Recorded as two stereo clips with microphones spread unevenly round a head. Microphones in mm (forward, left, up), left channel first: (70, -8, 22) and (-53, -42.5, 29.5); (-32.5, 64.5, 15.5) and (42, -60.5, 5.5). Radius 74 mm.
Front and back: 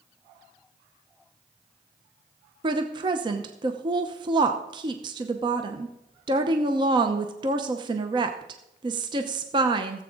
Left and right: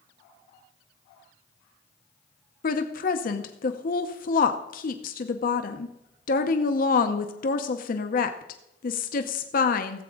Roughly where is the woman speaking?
Behind left.